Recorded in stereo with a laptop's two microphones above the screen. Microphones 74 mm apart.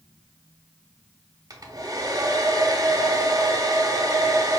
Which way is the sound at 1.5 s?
50° right (ahead or behind).